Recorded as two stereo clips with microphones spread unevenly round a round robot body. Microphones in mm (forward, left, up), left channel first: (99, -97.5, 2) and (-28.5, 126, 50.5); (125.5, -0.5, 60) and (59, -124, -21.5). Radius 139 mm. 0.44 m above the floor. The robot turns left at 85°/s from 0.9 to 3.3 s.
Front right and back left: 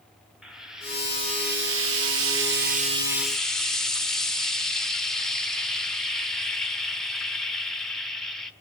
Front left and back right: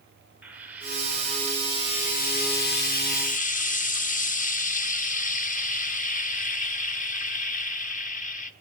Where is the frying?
140° right, 1.3 m; by 8.5 s 15° left, 1.3 m.